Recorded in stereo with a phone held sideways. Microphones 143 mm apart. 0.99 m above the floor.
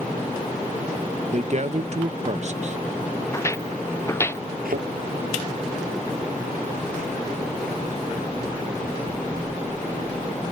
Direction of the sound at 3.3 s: 20° left (ahead or behind).